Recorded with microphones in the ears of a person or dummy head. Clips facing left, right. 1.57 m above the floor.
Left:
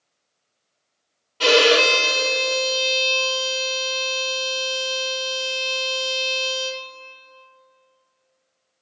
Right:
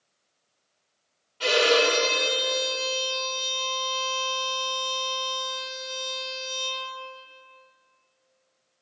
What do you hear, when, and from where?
1.4 s a violin: 65° left (ahead or behind), 0.5 m